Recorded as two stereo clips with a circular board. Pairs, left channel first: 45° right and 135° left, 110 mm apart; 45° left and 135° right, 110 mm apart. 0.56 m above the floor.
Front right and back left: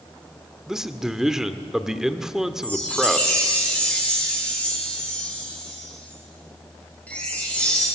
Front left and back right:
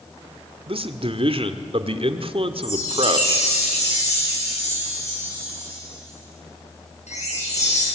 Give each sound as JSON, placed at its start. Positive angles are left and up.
{"t": 0.7, "sound": "a man speaking", "azimuth_deg": -140, "distance_m": 1.6}
{"t": 2.6, "sound": "a chime", "azimuth_deg": 30, "distance_m": 9.5}